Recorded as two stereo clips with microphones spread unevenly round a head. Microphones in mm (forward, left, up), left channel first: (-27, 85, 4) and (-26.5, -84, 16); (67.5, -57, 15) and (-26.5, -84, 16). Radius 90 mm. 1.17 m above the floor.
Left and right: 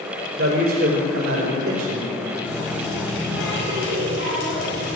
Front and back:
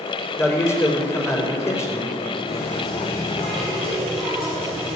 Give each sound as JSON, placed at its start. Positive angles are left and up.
{"t": 0.4, "sound": "a man speaking", "azimuth_deg": -50, "distance_m": 4.0}
{"t": 2.4, "sound": "a running tap", "azimuth_deg": 110, "distance_m": 5.0}